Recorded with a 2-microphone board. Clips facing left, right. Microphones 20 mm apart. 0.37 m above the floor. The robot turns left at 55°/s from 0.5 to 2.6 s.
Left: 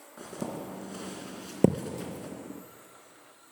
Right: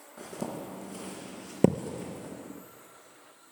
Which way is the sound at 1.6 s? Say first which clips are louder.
Even; 15° right (ahead or behind).